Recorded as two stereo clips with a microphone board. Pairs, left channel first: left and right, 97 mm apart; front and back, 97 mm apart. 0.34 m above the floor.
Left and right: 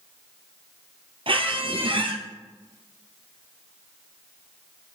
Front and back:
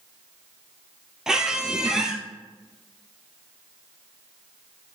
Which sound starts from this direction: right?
A squeak, at 1.3 s.